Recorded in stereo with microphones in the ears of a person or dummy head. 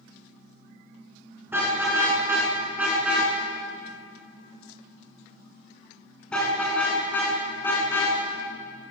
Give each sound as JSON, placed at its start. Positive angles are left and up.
{"t": 1.5, "sound": "a car horn", "side_deg": -15, "distance_m": 9.0}